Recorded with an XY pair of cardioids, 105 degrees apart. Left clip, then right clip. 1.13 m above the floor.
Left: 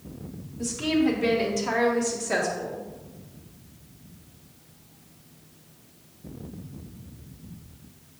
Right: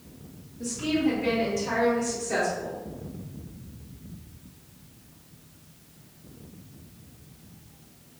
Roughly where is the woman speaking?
Ahead left.